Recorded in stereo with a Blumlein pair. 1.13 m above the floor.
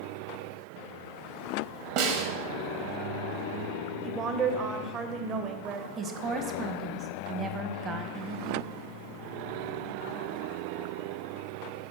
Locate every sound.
2.0 s a snare drum: 45° right, 1.1 m
4.0 s a woman speaking: 25° right, 0.8 m
6.0 s a woman speaking: 25° right, 0.9 m